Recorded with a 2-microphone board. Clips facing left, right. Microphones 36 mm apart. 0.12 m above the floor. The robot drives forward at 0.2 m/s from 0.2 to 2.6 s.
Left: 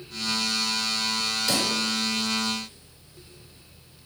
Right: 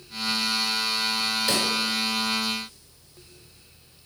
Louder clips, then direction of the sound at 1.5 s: Even; 20° right (ahead or behind).